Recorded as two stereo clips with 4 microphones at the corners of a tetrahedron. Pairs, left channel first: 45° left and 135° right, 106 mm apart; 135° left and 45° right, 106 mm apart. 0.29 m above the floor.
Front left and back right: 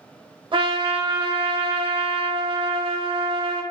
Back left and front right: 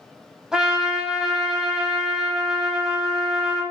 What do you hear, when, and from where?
0.5 s a trumpet: 125° right, 0.6 m